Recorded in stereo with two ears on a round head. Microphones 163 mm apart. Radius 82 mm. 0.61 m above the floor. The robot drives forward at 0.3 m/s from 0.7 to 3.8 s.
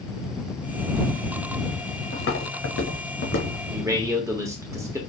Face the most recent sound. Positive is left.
turn(degrees=-15)  # may be behind; listen again after turning